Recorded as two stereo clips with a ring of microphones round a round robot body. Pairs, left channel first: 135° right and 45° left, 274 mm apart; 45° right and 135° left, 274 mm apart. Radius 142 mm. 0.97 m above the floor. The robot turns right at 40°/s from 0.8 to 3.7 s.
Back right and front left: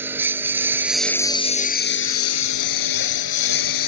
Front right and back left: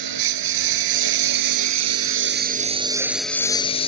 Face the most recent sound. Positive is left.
turn(degrees=-115)